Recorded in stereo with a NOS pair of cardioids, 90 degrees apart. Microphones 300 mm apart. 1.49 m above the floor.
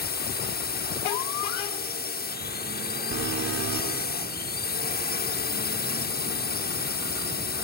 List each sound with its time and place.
0.0 s a drone: 35° left
3.1 s an alarm: 65° right